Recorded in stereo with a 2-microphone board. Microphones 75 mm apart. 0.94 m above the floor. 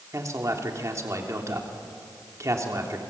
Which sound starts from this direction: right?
A man speaking, at 0.1 s.